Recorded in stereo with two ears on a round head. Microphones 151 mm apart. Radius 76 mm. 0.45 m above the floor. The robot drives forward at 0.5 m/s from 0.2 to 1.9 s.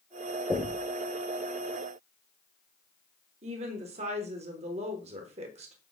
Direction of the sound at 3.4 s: 40° right (ahead or behind).